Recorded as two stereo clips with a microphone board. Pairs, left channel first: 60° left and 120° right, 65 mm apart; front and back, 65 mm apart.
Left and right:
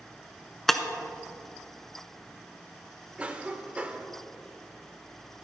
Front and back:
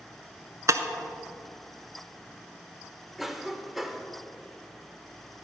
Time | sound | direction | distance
0.7 | breaking glass | 145° left | 0.7 m
3.2 | a cough | 100° right | 0.8 m